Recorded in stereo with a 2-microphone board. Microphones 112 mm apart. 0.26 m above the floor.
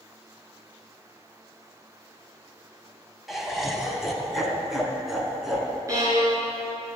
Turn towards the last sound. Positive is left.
turn(degrees=-30)  # may be behind; listen again after turning